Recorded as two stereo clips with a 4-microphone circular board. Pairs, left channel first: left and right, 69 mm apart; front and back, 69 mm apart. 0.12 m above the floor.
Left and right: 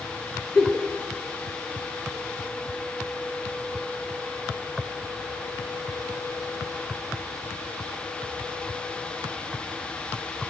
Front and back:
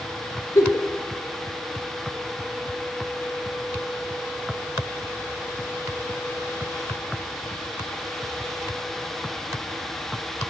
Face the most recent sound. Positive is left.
turn(degrees=15)